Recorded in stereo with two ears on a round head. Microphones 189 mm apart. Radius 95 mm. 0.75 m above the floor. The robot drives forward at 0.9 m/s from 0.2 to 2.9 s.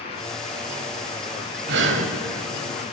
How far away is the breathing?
About 1.1 m.